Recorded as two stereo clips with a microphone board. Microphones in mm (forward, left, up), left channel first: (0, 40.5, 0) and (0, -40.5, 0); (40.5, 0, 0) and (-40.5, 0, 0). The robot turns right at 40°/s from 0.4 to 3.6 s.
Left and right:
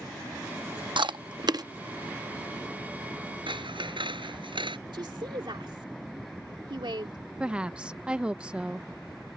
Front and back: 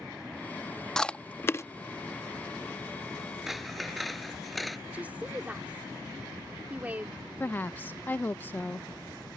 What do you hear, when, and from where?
1.0 s chewing: 80° right; by 1.6 s 55° right
3.5 s scissors: 95° right; by 4.8 s 90° right
4.9 s a woman speaking: 110° right
7.4 s a woman speaking: 30° right